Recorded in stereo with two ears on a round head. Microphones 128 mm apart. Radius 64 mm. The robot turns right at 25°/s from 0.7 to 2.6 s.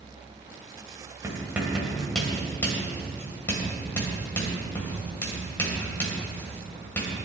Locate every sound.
1.2 s writing: 20° right (ahead or behind), 3 m; by 7.2 s 15° left (ahead or behind), 3 m